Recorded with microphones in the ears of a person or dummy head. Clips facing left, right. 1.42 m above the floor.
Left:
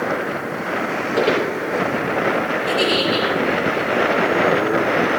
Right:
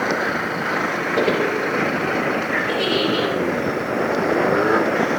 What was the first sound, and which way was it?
Footsteps, 10° left (ahead or behind).